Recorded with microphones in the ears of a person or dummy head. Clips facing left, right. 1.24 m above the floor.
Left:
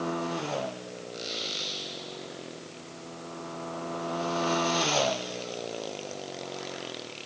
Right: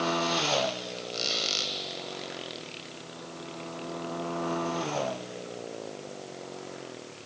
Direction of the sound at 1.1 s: 60° right (ahead or behind).